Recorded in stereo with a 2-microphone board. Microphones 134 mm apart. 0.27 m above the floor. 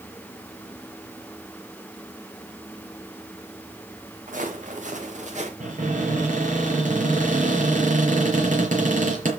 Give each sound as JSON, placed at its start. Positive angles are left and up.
{"t": 4.3, "sound": "footsteps", "side_deg": -75, "distance_m": 4.5}
{"t": 5.6, "sound": "a cupboard door", "side_deg": -70, "distance_m": 5.0}